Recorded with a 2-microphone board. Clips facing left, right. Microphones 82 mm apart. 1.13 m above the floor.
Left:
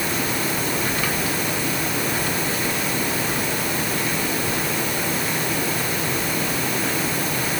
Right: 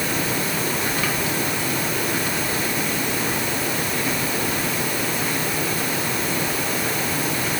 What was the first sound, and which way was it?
Only background noise.